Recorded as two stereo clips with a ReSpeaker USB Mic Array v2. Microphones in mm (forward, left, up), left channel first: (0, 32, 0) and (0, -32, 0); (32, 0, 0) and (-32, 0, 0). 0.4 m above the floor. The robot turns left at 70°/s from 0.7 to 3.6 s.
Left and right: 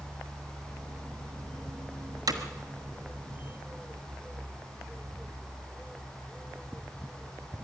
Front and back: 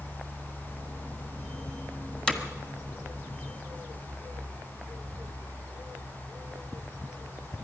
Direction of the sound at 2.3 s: 75° right.